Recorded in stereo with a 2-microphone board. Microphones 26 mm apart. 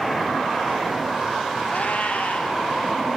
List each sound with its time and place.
1.7 s a cat meowing: 65° left (ahead or behind), 2.5 m